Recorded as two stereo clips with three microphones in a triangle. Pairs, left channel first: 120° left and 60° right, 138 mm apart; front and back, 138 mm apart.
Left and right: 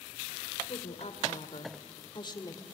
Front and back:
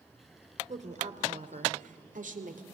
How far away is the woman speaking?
About 2.5 m.